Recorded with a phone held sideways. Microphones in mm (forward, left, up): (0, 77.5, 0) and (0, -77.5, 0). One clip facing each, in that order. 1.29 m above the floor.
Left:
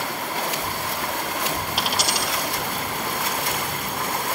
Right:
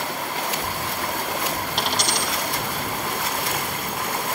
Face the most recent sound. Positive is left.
turn(degrees=5)  # may be behind; listen again after turning